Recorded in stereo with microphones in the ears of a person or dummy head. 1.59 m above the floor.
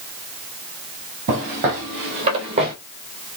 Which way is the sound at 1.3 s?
45° right (ahead or behind).